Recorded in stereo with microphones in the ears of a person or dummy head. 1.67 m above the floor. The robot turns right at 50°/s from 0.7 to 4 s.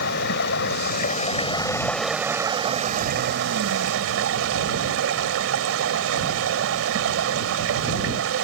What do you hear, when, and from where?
0.0 s running water: 115° left; by 8.4 s 80° right